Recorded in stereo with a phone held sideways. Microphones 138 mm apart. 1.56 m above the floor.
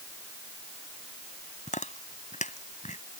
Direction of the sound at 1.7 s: 60° left (ahead or behind).